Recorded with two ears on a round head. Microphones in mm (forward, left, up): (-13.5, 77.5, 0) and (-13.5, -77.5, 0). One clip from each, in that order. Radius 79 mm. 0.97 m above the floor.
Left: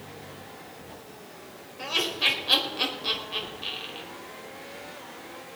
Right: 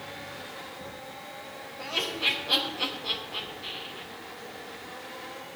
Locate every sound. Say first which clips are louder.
1.8 s laughter: left 3 dB; 55° left (ahead or behind), 4.5 m